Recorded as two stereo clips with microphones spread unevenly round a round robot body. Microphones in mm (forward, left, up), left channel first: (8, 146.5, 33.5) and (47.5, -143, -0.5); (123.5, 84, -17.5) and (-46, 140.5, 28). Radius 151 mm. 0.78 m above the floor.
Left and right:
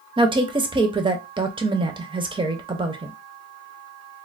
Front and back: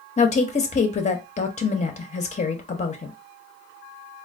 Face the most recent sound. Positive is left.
turn(degrees=-20)